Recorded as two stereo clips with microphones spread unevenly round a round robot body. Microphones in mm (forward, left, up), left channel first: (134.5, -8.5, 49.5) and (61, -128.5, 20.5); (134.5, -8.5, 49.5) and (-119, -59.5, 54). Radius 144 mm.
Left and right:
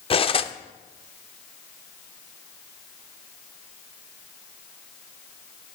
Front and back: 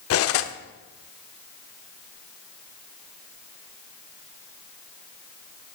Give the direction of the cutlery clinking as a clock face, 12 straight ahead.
12 o'clock.